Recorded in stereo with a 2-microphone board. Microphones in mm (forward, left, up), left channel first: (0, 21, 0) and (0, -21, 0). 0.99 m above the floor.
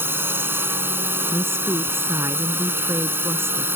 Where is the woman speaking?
70° right (ahead or behind).